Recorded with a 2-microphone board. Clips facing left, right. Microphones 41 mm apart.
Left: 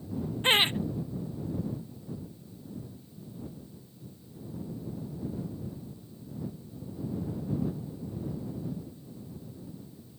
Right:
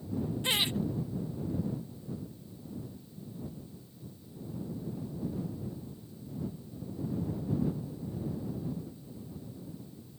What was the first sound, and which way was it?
Laughter, 40° left (ahead or behind).